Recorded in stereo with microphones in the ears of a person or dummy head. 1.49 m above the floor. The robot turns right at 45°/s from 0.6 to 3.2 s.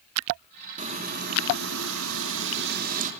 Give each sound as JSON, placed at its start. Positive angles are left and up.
{"t": 0.8, "sound": "frying", "azimuth_deg": -140, "distance_m": 3.5}